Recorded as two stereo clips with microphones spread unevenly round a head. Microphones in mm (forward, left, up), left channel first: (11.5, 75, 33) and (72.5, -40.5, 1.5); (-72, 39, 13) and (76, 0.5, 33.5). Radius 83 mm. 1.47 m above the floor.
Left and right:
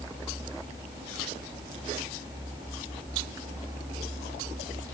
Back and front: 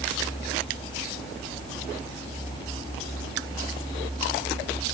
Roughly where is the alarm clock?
I don't hear an alarm clock.